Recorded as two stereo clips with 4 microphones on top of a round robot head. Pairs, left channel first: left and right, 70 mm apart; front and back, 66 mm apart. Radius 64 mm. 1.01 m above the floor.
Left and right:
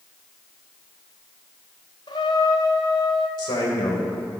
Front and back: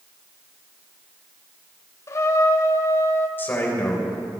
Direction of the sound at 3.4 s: 60° left.